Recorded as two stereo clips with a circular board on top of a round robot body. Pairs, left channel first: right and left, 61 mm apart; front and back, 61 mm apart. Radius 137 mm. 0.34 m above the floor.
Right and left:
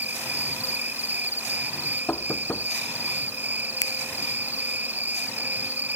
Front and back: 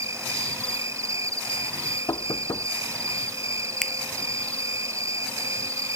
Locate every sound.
0.0 s an insect: 150° left
2.1 s knocking: 30° right
3.8 s a finger snap: 85° right